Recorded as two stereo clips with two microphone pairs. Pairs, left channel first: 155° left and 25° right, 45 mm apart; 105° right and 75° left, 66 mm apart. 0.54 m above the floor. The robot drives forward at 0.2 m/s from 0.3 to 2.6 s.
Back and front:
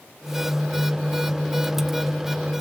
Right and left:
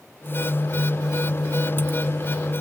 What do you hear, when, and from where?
Only background noise.